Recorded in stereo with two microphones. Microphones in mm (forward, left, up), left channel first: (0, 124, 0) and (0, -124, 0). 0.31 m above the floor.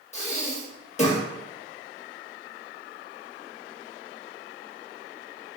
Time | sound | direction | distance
0.1 | breathing | 25° left (ahead or behind) | 0.6 m